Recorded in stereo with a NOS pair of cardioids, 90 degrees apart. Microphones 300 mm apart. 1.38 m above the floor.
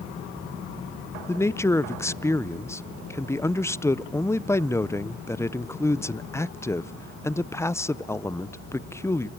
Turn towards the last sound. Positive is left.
turn(degrees=10)